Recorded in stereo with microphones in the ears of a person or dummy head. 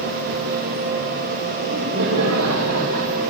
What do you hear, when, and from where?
1.6 s laughter: 60° right (ahead or behind), 3 m; by 3.3 s 65° right (ahead or behind), 1.8 m